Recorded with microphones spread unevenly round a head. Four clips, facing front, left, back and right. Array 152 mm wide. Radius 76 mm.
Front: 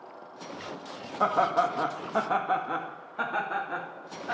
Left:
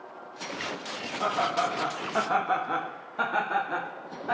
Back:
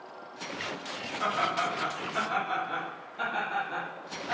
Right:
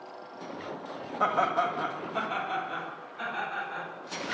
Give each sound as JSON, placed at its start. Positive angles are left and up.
{"t": 1.2, "sound": "laughter", "azimuth_deg": -20, "distance_m": 1.9}